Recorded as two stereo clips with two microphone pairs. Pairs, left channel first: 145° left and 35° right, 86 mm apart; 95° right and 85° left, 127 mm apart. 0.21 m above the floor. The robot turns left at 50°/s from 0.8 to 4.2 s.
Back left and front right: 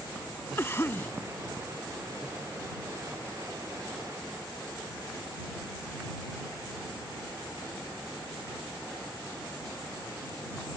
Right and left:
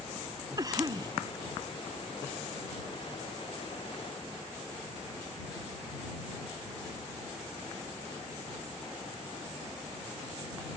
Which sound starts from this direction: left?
A cough, at 0.6 s.